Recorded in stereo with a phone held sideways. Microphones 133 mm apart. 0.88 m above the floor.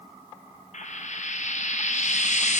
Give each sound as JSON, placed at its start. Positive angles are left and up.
{"t": 0.7, "sound": "frying", "side_deg": 60, "distance_m": 0.5}